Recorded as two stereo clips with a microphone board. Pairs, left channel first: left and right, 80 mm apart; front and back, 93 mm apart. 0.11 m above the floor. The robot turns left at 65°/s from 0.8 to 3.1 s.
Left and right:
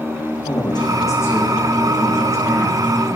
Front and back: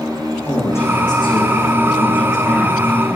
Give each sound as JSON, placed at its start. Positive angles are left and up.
{"t": 0.5, "sound": "a man speaking", "azimuth_deg": 65, "distance_m": 6.0}